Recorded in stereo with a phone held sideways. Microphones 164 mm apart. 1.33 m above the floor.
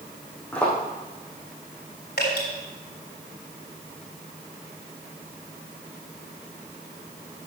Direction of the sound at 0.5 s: 10° left (ahead or behind).